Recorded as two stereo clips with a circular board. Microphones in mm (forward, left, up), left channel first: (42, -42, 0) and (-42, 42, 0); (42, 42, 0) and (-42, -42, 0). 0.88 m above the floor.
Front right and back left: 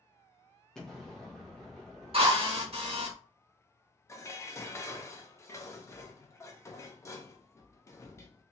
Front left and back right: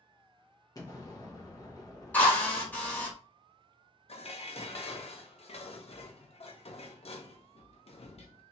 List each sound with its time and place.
0.8 s an explosion: 35° left, 1.0 m
2.1 s a drill: 120° left, 1.4 m
4.1 s dishes clattering: 20° left, 0.6 m